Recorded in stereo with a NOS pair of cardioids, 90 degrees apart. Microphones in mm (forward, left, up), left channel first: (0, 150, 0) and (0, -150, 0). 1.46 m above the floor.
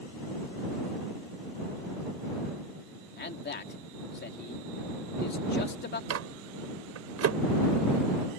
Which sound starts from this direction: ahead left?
A man speaking, at 3.2 s.